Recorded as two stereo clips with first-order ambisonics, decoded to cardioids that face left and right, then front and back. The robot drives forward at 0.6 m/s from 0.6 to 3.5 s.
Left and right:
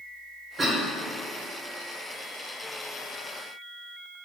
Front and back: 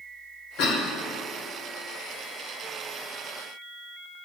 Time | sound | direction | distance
0.6 | a cough | 15° right | 1.7 m